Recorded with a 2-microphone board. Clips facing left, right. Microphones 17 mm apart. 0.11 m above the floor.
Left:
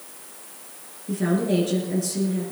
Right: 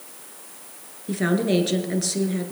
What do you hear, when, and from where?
1.1 s a woman speaking: 30° right (ahead or behind), 2.0 m